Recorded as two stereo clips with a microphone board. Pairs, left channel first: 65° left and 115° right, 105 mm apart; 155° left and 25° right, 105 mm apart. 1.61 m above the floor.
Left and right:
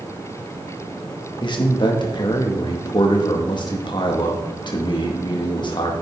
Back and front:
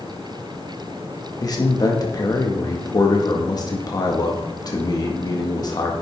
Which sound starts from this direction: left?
A man speaking, at 1.4 s.